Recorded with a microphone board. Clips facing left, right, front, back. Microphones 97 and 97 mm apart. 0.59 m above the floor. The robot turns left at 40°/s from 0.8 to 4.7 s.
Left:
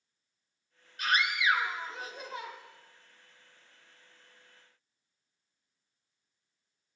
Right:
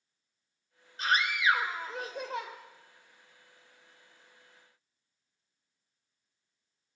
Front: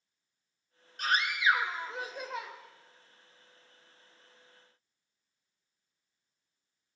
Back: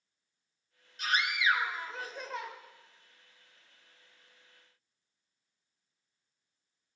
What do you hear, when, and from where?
1.0 s a scream: 30° right, 2.5 m; by 2.5 s 90° right, 2.5 m